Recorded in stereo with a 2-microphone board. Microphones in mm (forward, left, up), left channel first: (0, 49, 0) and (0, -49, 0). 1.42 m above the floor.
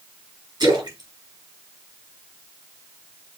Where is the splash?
50° right (ahead or behind), 5 m.